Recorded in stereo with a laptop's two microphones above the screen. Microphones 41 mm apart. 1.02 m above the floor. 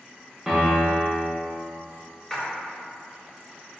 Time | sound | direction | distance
0.5 | a piano | 5° left (ahead or behind) | 1.3 m
2.3 | a splash | 5° left (ahead or behind) | 0.5 m